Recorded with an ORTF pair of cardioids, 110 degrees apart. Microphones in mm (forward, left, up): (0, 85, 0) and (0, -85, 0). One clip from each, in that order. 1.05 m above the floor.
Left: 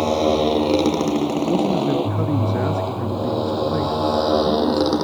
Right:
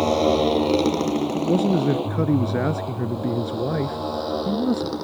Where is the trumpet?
I don't hear a trumpet.